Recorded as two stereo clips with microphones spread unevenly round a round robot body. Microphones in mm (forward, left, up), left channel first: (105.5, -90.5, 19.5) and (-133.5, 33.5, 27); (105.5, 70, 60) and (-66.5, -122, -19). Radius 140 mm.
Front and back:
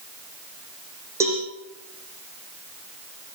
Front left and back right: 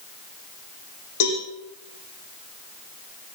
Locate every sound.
1.2 s a cowbell: 70° left, 7 m